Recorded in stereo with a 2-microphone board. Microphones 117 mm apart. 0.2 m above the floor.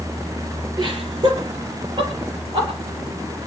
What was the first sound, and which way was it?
Laughter, 35° right (ahead or behind).